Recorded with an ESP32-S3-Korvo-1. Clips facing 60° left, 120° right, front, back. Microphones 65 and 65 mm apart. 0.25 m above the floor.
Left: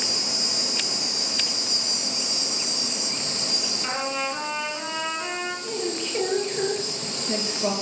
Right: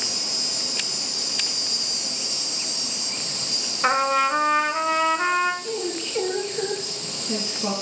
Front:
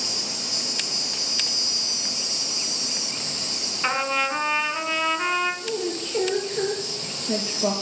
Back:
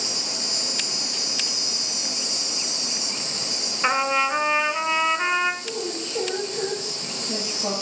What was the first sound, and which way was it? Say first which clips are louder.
An insect: left 2 dB, back 1 dB; 105° left.